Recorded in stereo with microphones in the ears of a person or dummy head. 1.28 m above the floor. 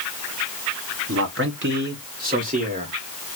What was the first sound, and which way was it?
A man speaking, 55° right (ahead or behind).